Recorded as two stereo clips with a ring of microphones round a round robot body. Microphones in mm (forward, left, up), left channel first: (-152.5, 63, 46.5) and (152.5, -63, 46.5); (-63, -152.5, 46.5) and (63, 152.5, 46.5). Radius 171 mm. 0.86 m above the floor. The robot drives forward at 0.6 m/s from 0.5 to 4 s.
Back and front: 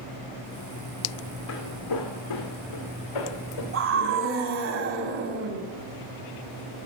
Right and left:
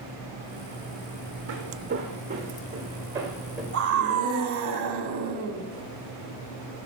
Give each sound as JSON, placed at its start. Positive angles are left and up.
{"t": 1.5, "sound": "footsteps", "azimuth_deg": 115, "distance_m": 2.0}
{"t": 3.7, "sound": "a scream", "azimuth_deg": 20, "distance_m": 2.0}